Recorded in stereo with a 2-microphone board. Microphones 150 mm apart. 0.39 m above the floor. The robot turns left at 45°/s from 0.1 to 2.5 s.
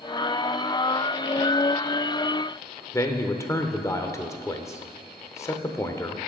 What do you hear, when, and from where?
2.9 s a man speaking: 20° left (ahead or behind), 0.8 m